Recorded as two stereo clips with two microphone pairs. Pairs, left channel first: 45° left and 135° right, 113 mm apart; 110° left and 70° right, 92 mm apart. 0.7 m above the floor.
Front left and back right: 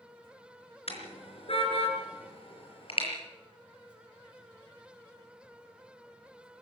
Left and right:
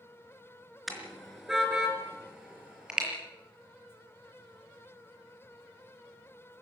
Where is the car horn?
20° left, 4 m; by 3.1 s 10° left, 6.5 m.